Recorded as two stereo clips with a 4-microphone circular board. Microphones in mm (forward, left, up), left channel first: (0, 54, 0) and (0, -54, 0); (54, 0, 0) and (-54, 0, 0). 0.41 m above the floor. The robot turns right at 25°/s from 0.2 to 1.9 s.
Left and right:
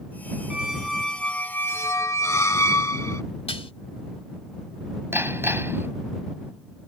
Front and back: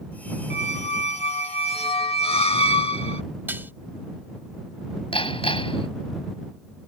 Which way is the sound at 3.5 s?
110° left.